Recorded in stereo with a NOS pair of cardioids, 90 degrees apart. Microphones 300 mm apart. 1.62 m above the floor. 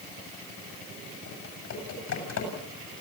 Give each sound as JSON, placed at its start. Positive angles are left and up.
{"t": 1.3, "sound": "typing on a keyboard", "azimuth_deg": 65, "distance_m": 8.5}